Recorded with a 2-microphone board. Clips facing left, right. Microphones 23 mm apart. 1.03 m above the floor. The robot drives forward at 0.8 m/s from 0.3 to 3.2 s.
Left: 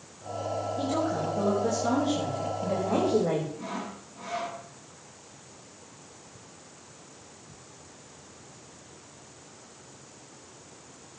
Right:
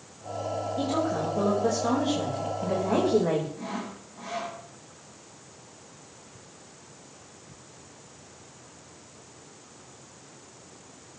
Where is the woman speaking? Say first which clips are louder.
Right 2 dB; 60° right (ahead or behind), 4.5 m; by 3.5 s 85° right, 4 m.